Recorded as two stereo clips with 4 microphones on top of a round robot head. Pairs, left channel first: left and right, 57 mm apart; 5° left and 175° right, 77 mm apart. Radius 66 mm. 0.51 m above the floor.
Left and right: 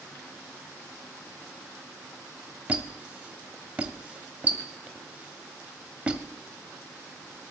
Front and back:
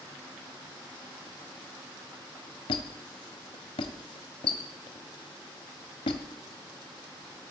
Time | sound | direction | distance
2.7 | a squeak | 20° right | 0.9 m